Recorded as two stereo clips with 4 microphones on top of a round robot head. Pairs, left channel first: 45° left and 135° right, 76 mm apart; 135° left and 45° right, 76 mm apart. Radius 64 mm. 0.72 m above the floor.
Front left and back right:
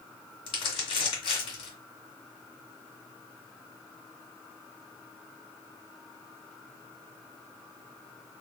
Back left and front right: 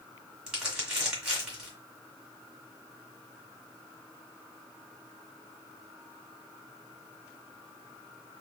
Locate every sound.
0.5 s crumpling: 35° left, 1.5 m